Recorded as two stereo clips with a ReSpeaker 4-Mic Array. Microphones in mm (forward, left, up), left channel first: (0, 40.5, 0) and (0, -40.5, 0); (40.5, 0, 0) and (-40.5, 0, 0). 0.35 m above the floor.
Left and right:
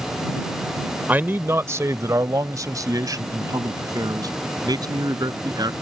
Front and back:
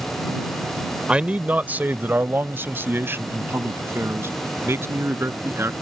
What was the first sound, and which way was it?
A man speaking, 120° right.